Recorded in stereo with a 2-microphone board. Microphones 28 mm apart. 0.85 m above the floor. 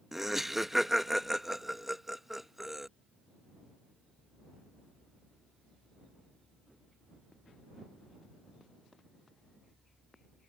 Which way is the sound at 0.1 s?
5° right (ahead or behind).